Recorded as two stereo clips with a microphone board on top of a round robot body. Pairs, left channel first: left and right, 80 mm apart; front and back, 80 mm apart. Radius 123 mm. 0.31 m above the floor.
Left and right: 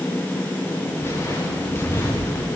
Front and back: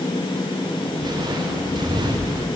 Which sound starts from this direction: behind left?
Footsteps, at 1.0 s.